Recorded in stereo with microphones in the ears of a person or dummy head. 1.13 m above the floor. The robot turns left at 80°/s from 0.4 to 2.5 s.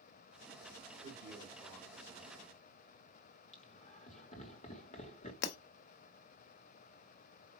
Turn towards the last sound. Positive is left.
turn(degrees=65)  # may be behind; listen again after turning